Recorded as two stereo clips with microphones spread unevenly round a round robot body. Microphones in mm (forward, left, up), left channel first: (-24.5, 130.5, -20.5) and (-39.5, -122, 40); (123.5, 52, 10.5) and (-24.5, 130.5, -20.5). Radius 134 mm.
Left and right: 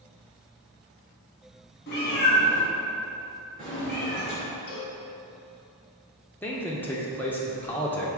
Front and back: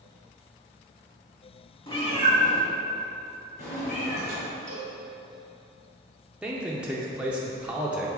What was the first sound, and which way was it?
A cat meowing, 35° left.